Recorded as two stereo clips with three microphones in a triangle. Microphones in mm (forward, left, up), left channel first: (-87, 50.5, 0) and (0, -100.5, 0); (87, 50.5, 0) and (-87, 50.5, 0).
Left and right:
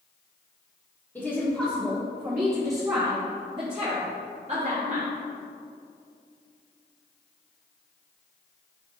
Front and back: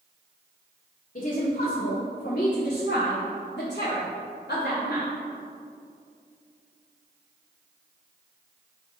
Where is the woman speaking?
40° left, 1.8 m; by 5.1 s 20° right, 2.5 m.